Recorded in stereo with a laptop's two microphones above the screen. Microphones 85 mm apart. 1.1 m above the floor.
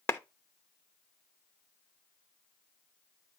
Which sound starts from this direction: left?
A clap, at 0.1 s.